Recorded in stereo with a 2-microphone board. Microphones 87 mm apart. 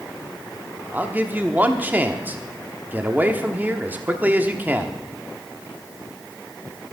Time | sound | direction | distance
0.9 | a man speaking | 20° right (ahead or behind) | 1.1 m